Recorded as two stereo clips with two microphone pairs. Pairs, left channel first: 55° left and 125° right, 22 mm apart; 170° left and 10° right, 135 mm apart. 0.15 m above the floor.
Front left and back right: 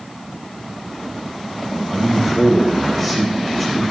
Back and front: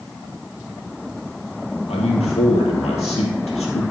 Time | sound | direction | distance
1.9 | a man speaking | 140° left | 3 m